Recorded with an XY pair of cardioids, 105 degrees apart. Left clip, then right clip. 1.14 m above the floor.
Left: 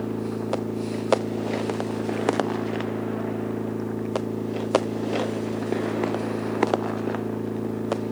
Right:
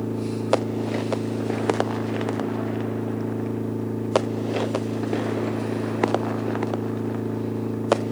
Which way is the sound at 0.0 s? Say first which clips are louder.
Right 1 dB; 10° right.